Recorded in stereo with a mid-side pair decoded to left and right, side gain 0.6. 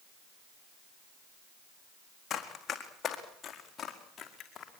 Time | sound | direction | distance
2.3 | running footsteps | 40° left | 4 m